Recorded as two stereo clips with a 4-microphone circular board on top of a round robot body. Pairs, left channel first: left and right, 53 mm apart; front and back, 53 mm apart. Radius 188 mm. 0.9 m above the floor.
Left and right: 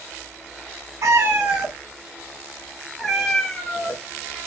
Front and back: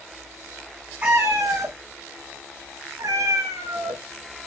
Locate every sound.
1.0 s a cat meowing: 120° right, 0.5 m; by 4.5 s 165° left, 2 m